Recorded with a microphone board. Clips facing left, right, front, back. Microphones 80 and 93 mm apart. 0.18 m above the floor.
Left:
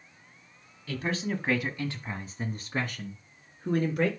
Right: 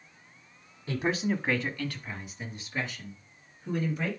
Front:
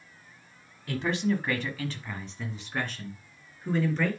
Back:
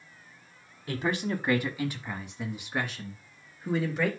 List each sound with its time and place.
0.9 s a man speaking: 120° right, 1.2 m; by 4.1 s 95° left, 3 m